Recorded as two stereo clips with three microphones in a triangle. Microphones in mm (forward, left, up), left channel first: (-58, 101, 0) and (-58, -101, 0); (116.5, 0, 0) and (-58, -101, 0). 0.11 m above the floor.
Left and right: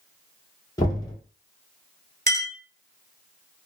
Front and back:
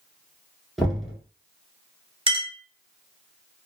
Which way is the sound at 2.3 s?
100° right.